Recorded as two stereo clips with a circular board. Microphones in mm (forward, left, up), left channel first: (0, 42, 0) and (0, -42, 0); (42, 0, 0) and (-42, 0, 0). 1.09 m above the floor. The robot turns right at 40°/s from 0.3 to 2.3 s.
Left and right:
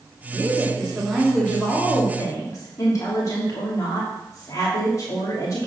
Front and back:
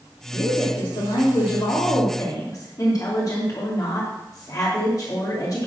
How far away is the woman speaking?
About 2.5 m.